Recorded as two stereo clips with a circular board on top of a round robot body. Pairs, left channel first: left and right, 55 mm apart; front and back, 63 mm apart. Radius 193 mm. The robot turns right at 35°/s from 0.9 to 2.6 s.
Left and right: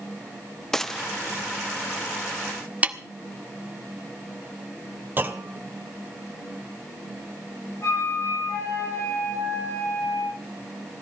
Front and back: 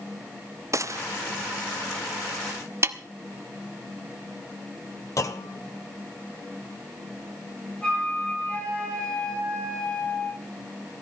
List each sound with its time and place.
0.7 s a gunshot: 170° left, 0.9 m; by 1.0 s 175° left, 0.9 m
2.8 s a snare drum: 150° right, 1.3 m
5.2 s a clunk: 35° right, 1.6 m
7.8 s a flute: 70° left, 9.5 m